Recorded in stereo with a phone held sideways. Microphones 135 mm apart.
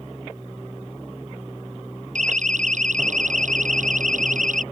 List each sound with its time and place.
2.1 s a siren: 65° right (ahead or behind); by 4.6 s 70° right (ahead or behind)